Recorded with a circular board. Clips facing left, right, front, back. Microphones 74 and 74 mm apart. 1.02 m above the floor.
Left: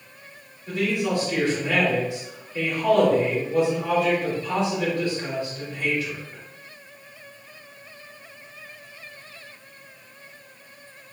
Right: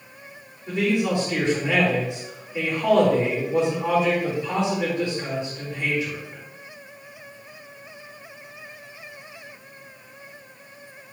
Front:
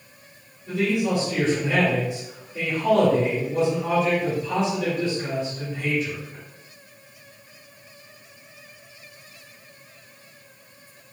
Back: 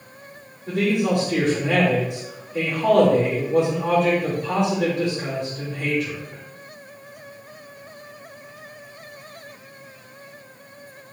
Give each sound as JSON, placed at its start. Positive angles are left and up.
{"t": 0.7, "sound": "a man speaking", "azimuth_deg": -165, "distance_m": 4.0}